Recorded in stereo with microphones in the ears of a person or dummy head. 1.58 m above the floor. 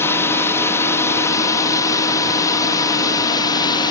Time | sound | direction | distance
0.0 | a drone | 20° left (ahead or behind) | ?